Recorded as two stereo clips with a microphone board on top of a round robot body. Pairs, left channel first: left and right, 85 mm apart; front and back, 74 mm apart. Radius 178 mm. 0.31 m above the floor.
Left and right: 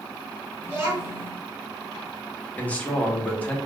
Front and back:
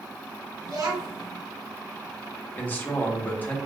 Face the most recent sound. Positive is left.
turn(degrees=35)